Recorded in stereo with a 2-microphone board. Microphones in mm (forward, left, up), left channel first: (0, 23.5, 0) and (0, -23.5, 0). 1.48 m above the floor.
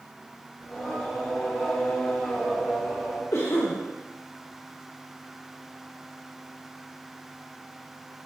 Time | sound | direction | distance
0.6 | singing | 10° left (ahead or behind) | 0.9 m
3.3 | a cough | 70° left (ahead or behind) | 0.5 m